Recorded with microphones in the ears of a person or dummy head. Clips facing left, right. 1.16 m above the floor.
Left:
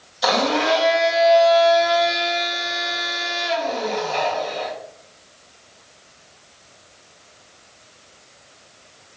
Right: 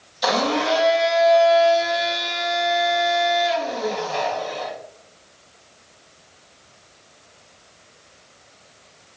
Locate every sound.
0.2 s a blender: centre (ahead or behind), 1.4 m